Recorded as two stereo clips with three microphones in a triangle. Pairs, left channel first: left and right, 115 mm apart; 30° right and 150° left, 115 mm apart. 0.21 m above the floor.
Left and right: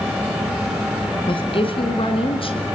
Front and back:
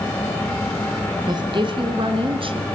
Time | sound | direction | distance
1.3 | a woman speaking | 115° left | 2.5 m